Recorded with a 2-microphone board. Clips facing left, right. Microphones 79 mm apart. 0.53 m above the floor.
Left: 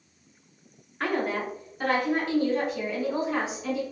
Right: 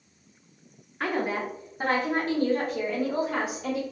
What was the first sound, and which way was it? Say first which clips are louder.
A woman speaking: even; centre (ahead or behind).